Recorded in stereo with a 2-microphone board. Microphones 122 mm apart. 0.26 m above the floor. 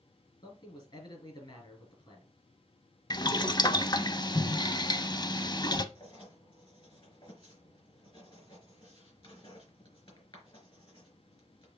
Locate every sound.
0.4 s a man speaking: 40° left (ahead or behind), 4 m
3.1 s boiling: 35° left (ahead or behind), 0.6 m
6.0 s writing: 45° left (ahead or behind), 4 m